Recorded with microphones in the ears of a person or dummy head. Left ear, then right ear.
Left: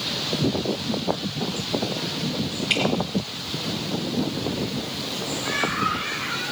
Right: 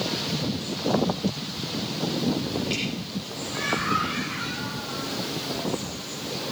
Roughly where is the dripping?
Left.